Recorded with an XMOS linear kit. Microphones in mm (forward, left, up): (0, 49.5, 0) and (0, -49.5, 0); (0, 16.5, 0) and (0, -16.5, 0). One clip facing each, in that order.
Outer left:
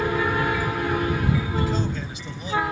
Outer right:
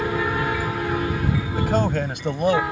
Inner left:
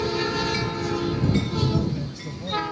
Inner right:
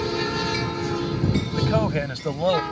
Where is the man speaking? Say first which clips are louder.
Outer right 4 dB, inner right 3 dB; 60° right (ahead or behind); by 2.6 s 65° right (ahead or behind).